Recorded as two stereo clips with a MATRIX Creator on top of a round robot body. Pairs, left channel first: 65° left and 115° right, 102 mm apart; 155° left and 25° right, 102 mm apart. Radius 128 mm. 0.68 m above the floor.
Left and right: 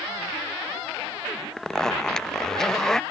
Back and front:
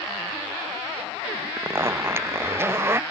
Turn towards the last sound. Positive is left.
turn(degrees=-10)